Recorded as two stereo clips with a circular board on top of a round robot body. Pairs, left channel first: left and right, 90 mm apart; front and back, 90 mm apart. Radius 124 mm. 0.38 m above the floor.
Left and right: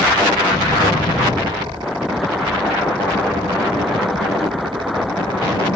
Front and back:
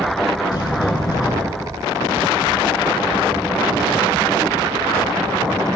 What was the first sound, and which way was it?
A sliding door, 40° left.